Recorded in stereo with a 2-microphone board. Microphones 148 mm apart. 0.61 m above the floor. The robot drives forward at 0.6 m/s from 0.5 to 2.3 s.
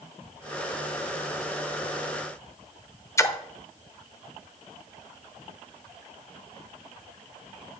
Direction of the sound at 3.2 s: 20° left (ahead or behind).